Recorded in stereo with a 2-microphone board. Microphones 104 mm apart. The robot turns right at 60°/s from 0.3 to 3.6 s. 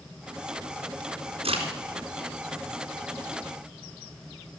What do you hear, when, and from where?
1.4 s a crack: 80° right, 2.5 m; by 1.6 s 70° right (ahead or behind), 2.5 m